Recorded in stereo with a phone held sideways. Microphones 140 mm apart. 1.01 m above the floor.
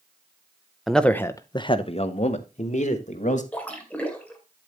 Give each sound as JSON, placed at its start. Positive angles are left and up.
{"t": 0.9, "sound": "a man speaking", "side_deg": 0, "distance_m": 0.7}
{"t": 3.5, "sound": "a splash", "side_deg": 10, "distance_m": 2.0}